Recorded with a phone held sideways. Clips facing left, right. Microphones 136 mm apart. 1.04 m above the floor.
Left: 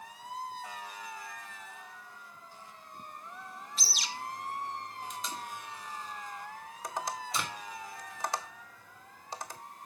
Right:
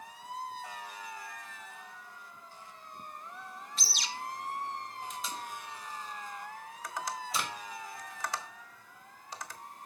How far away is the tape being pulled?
About 2.0 m.